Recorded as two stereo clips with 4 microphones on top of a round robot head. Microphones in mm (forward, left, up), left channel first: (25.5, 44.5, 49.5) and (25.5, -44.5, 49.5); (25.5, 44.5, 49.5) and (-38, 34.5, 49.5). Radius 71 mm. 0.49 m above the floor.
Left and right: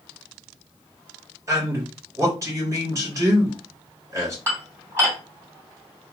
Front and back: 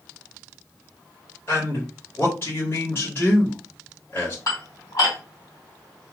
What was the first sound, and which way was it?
A man speaking, 40° right.